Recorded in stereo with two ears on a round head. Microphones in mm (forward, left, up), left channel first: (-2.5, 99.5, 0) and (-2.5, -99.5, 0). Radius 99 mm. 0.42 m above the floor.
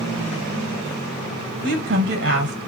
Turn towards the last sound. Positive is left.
turn(degrees=-55)  # may be behind; listen again after turning